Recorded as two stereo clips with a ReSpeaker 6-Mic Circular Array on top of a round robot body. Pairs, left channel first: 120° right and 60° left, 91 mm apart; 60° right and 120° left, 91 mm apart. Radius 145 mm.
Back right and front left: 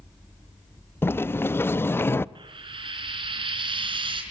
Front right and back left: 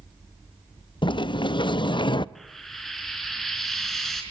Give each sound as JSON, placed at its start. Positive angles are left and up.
{"t": 1.0, "sound": "a sliding door", "azimuth_deg": -60, "distance_m": 0.7}
{"t": 2.4, "sound": "frying", "azimuth_deg": 25, "distance_m": 4.0}